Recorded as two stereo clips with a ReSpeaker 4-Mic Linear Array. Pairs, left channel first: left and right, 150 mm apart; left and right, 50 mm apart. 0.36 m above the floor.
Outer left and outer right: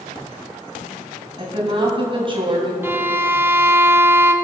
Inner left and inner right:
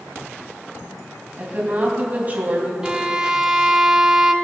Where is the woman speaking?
35° right (ahead or behind), 3 m.